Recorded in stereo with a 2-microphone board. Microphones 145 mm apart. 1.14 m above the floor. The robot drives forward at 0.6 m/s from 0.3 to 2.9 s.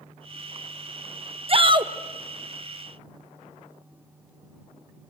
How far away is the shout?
About 0.9 m.